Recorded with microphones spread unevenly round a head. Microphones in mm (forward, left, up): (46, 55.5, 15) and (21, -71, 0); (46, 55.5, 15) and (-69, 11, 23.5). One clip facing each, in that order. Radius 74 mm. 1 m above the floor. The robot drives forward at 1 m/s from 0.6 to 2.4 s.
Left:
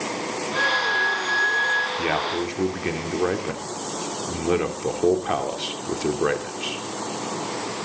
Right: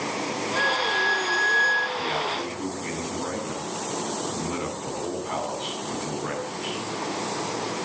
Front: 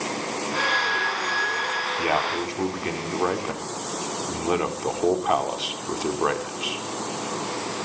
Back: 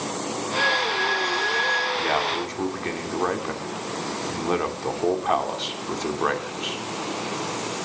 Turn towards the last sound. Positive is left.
turn(degrees=105)